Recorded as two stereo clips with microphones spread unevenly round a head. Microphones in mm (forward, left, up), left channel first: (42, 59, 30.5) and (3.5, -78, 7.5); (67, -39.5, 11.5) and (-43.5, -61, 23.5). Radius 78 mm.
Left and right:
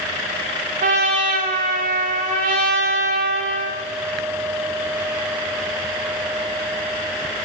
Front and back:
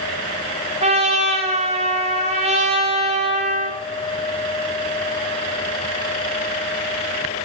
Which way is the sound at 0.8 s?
145° right.